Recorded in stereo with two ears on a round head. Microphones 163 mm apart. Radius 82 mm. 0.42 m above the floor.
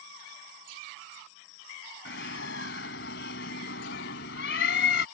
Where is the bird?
65° left (ahead or behind).